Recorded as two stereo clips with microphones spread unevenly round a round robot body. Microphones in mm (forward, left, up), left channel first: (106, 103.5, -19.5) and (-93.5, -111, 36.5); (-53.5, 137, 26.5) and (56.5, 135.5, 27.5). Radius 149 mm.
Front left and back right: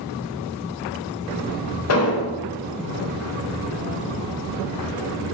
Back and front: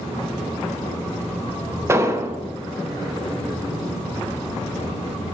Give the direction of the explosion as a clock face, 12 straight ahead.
10 o'clock.